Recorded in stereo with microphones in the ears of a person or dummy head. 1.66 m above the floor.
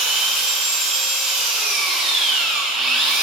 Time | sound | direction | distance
0.0 | an engine running | centre (ahead or behind) | 1.4 m